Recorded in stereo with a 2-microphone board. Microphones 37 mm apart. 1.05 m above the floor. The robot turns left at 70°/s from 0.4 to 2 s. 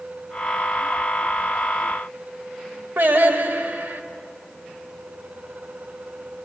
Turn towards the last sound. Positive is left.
turn(degrees=-70)  # may be behind; listen again after turning